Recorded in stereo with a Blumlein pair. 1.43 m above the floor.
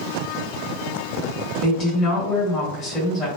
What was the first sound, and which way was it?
A woman speaking, 25° left.